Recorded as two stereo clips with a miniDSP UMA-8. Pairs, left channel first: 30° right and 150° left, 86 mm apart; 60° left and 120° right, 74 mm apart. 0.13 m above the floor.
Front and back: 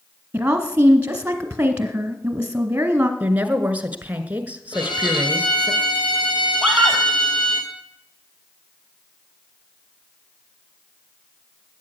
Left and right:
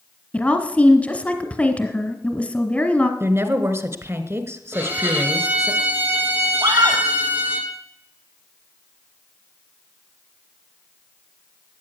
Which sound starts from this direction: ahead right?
A violin, at 4.7 s.